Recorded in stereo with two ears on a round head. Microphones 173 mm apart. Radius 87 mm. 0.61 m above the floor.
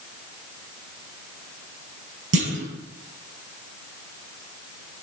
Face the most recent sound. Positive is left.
turn(degrees=-70)  # may be behind; listen again after turning